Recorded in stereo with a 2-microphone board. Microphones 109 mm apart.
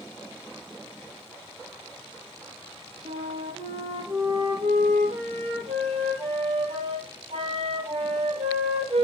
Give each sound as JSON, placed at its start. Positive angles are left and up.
{"t": 3.0, "sound": "a flute", "side_deg": -55, "distance_m": 4.0}